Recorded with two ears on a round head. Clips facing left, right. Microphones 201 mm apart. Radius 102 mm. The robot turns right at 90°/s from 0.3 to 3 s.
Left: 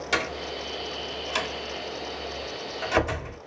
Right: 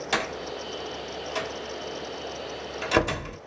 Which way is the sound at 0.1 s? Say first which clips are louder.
Left 1 dB; centre (ahead or behind).